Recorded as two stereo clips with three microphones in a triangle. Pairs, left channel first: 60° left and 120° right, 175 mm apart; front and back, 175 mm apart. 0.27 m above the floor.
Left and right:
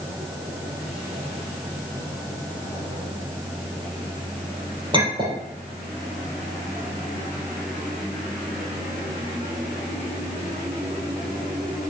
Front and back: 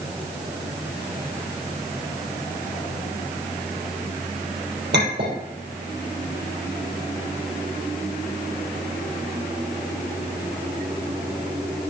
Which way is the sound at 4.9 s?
Straight behind.